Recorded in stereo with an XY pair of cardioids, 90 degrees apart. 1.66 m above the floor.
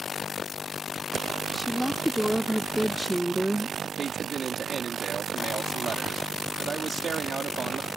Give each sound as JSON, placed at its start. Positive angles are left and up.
{"t": 1.5, "sound": "a woman speaking", "azimuth_deg": 5}
{"t": 4.0, "sound": "a man speaking", "azimuth_deg": -45}